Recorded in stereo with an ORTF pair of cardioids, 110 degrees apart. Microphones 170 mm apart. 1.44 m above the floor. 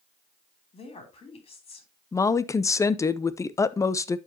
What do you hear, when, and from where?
0.7 s a woman speaking: 35° left, 3 m
2.1 s a woman speaking: 20° left, 0.6 m